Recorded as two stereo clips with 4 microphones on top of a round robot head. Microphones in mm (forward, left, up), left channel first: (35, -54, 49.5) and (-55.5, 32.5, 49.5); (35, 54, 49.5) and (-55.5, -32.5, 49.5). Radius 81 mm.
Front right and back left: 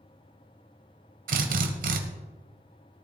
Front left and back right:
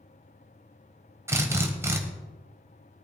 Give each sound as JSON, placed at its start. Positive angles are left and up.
{"t": 1.3, "sound": "a drill", "azimuth_deg": 155, "distance_m": 1.6}